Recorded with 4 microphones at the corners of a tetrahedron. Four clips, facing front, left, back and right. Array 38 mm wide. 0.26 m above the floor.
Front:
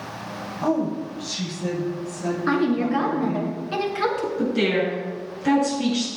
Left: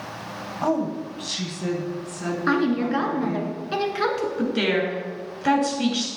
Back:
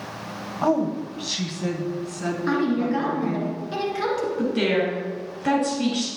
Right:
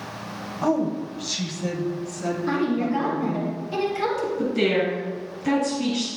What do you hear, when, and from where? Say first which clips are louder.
0.6 s a woman speaking: right 1 dB, back 1 dB; 160° left, 1.2 m; by 3.5 s 150° left, 4 m
2.5 s a woman speaking: left 3 dB, front 1 dB; 70° left, 2.5 m
4.4 s a woman speaking: right 1 dB, front 1 dB; 105° left, 4.5 m